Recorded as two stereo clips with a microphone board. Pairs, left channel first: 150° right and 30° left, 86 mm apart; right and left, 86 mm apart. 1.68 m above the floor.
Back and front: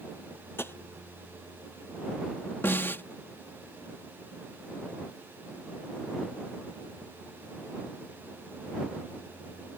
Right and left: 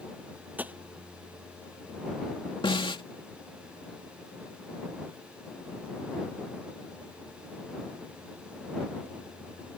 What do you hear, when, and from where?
0.6 s tapping: 155° left
2.6 s a snare drum: 85° right